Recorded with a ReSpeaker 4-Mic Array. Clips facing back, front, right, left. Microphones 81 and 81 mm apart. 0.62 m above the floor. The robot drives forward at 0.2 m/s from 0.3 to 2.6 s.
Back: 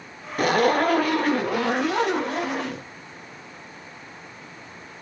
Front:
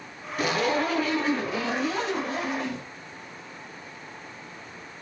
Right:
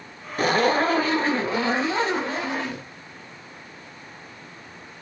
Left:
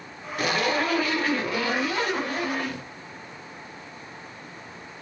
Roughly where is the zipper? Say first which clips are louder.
Back 5 dB, right 5 dB; behind right.